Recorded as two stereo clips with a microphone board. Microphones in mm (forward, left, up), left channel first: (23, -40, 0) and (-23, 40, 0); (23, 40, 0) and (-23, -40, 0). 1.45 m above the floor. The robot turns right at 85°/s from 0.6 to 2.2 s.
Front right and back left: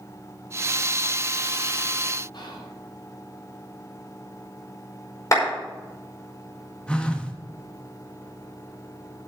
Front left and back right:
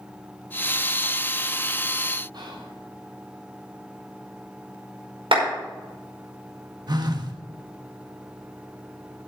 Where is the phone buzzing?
135° right, 1.1 m.